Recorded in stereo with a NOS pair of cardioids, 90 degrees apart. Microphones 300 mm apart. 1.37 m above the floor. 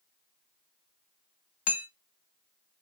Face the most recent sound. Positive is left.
turn(degrees=55)